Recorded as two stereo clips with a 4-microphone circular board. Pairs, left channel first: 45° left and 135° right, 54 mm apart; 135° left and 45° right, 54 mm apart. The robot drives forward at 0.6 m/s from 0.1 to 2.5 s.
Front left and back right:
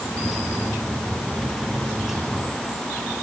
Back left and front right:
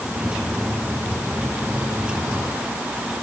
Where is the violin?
No violin in this recording.